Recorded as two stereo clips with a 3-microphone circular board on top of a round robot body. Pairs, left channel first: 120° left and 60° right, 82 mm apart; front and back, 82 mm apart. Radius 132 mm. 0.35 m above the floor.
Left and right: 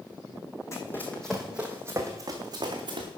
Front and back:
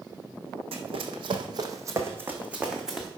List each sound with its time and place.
0.7 s running footsteps: straight behind, 1.1 m; by 3.1 s 95° right, 1.7 m